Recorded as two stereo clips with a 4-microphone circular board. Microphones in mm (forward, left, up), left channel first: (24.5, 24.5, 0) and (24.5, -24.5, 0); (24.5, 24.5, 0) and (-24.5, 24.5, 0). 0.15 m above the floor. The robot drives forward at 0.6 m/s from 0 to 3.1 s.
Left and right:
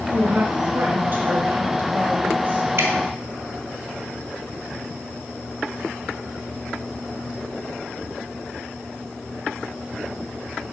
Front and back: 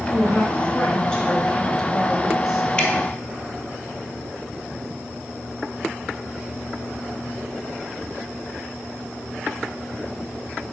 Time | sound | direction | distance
0.1 | a woman speaking | 55° right | 2.5 m
2.8 | dripping | 70° right | 1.3 m